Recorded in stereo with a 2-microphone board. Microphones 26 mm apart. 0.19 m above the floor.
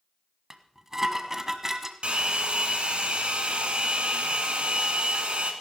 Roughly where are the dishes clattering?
Right.